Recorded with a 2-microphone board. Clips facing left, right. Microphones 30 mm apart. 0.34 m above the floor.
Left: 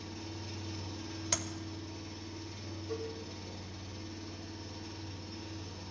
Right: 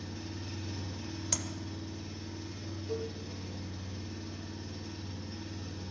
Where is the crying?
I don't hear crying.